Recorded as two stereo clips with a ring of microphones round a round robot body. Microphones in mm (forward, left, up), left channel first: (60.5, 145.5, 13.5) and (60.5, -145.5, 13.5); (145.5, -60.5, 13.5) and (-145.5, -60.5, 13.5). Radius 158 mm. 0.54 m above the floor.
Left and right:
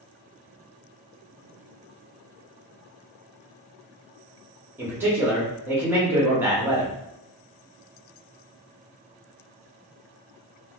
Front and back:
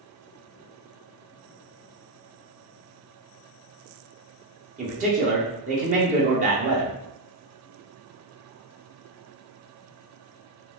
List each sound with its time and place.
4.8 s a man speaking: 165° right, 0.9 m